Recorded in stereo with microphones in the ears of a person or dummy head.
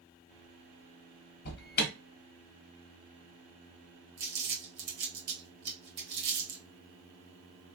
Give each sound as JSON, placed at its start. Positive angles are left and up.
{"t": 1.4, "sound": "an alarm", "side_deg": 50, "distance_m": 0.9}
{"t": 4.2, "sound": "crumpling", "side_deg": -55, "distance_m": 1.6}